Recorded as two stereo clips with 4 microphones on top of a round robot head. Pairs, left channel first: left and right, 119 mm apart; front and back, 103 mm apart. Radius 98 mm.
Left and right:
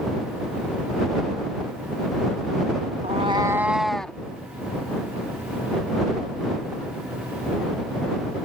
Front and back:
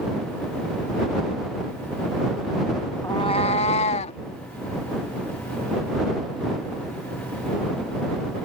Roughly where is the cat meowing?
Ahead right.